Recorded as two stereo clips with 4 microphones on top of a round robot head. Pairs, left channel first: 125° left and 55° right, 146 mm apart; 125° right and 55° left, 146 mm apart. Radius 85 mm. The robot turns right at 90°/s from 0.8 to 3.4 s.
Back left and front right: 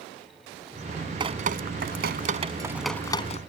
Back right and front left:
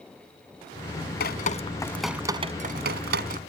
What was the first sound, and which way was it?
Dripping, 110° right.